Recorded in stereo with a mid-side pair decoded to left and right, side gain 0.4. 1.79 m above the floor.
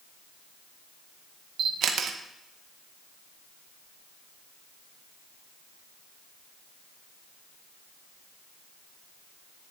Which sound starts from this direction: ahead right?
A camera shutter, at 1.6 s.